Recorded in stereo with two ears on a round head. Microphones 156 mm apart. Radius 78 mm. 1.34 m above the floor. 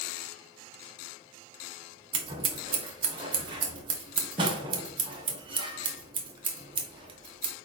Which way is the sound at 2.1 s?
30° right (ahead or behind).